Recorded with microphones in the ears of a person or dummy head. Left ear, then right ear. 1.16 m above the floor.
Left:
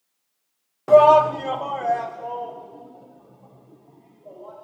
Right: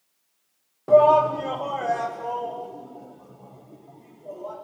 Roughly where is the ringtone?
No ringtone in this recording.